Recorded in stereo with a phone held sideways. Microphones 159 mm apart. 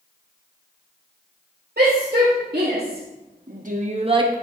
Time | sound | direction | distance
1.8 | a shout | 85° right | 3 m